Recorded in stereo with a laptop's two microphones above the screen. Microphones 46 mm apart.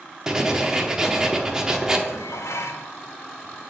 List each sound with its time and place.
0.3 s writing: 15° right (ahead or behind), 0.9 m
2.1 s dishes clattering: 80° left, 0.7 m